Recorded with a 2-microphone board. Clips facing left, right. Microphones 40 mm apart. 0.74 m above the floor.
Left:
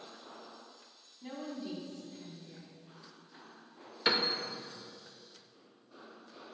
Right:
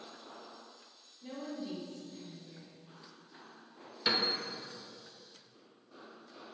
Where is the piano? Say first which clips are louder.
Left 1 dB; 20° left (ahead or behind), 0.7 m.